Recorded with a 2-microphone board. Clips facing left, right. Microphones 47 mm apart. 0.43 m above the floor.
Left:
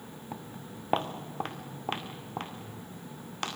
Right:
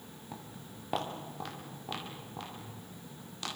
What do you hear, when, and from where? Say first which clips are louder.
0.3 s footsteps: left 4 dB; 20° left (ahead or behind), 2.5 m; by 3.6 s 55° left (ahead or behind), 6 m